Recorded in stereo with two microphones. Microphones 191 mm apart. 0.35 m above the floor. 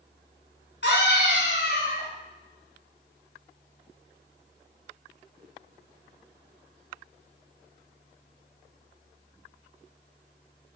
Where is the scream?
70° left (ahead or behind), 3.5 m.